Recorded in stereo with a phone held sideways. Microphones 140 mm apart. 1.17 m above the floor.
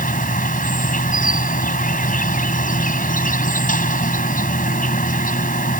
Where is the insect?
75° left (ahead or behind).